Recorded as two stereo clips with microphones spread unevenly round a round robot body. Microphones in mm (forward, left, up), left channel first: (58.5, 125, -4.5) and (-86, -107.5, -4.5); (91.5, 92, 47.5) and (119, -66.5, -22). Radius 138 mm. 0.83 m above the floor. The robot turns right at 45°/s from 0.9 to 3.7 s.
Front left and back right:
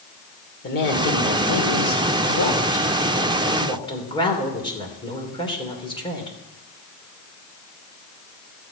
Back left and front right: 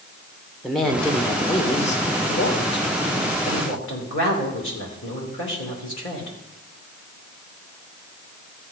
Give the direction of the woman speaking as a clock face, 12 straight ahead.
12 o'clock.